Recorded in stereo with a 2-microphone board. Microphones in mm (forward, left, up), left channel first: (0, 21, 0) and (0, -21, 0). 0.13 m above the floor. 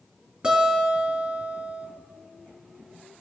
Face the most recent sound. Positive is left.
turn(degrees=-20)  # may be behind; listen again after turning